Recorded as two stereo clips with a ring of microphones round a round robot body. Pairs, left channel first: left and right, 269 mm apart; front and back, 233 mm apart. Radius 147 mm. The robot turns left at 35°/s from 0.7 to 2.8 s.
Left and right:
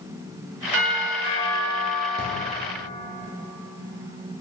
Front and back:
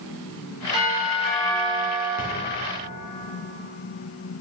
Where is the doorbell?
110° right, 1.4 m; by 2.1 s 160° right, 1.4 m.